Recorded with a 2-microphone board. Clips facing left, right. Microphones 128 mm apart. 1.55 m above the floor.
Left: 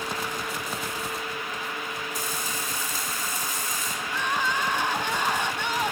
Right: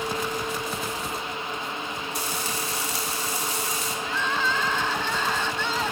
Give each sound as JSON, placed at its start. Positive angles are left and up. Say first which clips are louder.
{"t": 2.1, "sound": "frying", "louder": "right 2 dB", "side_deg": -65, "distance_m": 6.0}
{"t": 4.0, "sound": "crying", "louder": "even", "side_deg": 15, "distance_m": 1.2}